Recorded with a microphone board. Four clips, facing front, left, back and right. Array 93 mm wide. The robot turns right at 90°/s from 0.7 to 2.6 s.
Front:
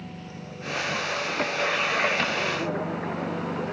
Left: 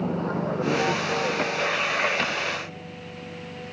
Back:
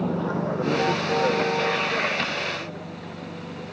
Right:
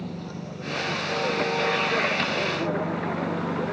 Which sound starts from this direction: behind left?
A vehicle, at 0.0 s.